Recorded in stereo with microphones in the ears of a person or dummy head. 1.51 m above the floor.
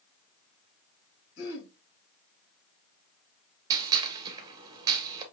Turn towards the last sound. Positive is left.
turn(degrees=-20)  # may be behind; listen again after turning